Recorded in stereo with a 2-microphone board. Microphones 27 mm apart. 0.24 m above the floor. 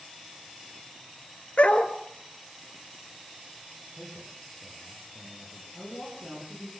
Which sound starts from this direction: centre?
A man speaking, at 4.0 s.